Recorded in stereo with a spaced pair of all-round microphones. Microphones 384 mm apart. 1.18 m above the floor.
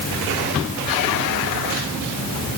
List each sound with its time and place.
Only background noise.